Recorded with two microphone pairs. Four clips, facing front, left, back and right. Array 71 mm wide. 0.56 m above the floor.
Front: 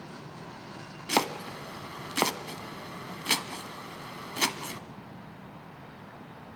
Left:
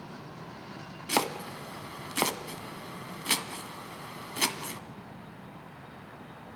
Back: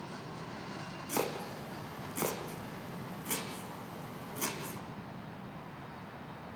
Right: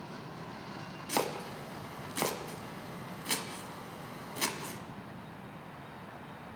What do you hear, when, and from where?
1.1 s chopping: 15° left, 1.4 m